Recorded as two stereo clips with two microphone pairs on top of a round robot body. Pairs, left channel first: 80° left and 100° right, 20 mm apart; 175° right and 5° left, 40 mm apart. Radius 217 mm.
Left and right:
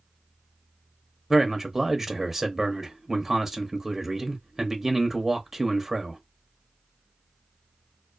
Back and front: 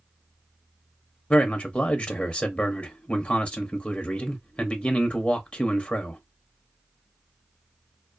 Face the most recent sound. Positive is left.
turn(degrees=-170)